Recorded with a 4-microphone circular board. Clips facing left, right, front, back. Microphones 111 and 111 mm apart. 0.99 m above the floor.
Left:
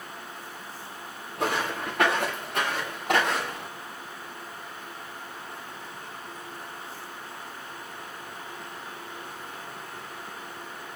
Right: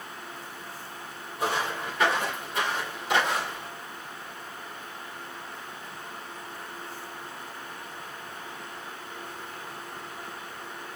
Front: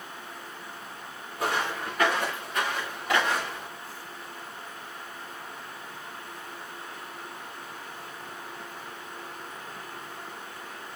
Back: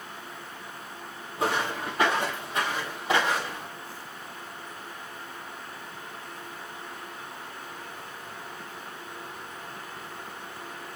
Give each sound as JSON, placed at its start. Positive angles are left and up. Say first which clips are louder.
{"t": 1.4, "sound": "footsteps", "louder": "left 1 dB, back 1 dB", "azimuth_deg": 115, "distance_m": 6.0}